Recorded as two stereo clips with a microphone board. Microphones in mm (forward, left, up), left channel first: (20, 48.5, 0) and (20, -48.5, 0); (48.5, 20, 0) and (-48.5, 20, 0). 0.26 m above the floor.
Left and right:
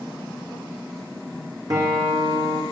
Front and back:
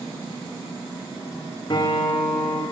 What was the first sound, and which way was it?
A guitar, 45° right.